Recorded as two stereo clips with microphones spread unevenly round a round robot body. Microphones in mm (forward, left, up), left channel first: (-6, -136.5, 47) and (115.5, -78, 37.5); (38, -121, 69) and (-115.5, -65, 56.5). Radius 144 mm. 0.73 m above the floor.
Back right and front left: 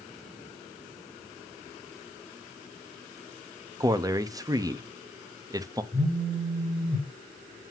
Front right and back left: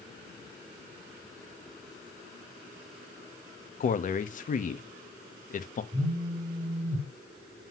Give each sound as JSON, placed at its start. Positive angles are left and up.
{"t": 3.8, "sound": "a man speaking", "azimuth_deg": -25, "distance_m": 0.9}
{"t": 5.9, "sound": "a phone buzzing", "azimuth_deg": 105, "distance_m": 3.0}